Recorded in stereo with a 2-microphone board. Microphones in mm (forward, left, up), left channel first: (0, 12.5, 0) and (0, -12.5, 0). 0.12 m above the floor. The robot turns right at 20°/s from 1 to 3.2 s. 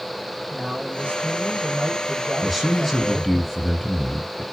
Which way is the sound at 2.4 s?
Centre (ahead or behind).